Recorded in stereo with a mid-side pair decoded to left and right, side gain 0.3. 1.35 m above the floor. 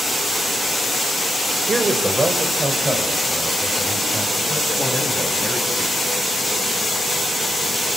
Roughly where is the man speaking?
Ahead right.